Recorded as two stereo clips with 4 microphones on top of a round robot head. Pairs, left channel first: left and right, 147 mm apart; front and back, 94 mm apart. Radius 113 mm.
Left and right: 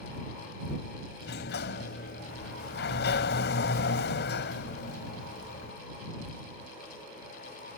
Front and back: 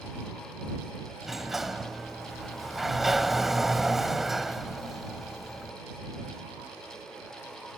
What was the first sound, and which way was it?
A sliding door, 95° left.